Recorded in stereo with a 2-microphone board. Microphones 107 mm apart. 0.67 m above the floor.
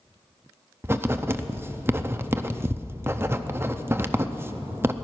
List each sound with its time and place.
0.8 s writing: 20° right (ahead or behind), 0.6 m